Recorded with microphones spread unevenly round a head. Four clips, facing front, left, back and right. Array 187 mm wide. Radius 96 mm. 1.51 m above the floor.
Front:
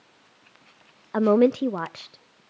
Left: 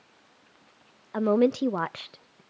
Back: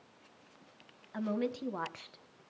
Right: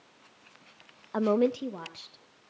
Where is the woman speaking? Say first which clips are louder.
Left 3 dB, front 16 dB; 5° right, 0.6 m; by 2.4 s 80° left, 0.8 m.